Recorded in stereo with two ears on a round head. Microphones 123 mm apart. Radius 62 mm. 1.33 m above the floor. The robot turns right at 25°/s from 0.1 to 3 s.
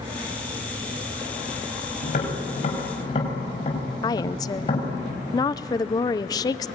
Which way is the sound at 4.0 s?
25° left (ahead or behind).